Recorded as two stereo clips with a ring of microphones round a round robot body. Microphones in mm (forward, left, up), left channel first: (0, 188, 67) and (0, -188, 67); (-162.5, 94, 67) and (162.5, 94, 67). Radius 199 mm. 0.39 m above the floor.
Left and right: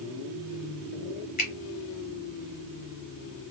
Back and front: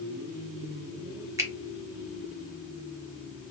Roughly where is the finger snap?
Ahead left.